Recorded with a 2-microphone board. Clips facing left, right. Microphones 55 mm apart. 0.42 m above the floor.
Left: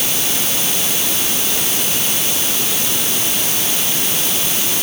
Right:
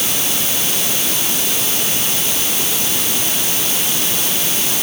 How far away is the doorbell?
I don't hear a doorbell.